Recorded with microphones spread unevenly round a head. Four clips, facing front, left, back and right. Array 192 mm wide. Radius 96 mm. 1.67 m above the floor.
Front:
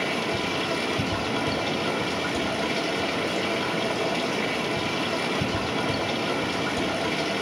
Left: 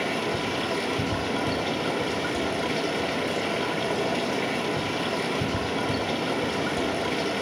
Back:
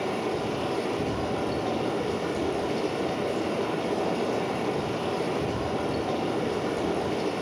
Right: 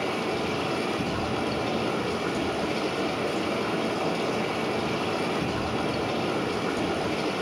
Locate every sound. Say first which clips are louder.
0.0 s running water: even, front 1 dB; 30° left, 6 m